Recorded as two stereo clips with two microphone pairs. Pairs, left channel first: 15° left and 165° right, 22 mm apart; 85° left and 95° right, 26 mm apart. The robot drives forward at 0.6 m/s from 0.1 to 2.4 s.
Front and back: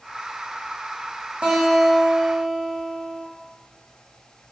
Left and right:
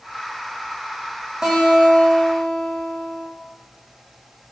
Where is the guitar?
160° right, 2 m; by 3.2 s 165° right, 3 m.